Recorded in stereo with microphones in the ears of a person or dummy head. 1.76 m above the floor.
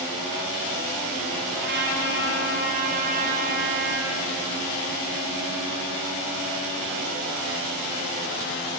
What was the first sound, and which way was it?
A trumpet, 50° right (ahead or behind).